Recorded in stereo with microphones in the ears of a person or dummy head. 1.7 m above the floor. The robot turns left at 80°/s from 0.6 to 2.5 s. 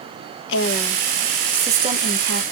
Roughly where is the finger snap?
I don't hear a finger snap.